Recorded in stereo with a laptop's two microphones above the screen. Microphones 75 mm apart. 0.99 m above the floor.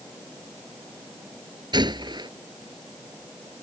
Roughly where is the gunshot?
Right.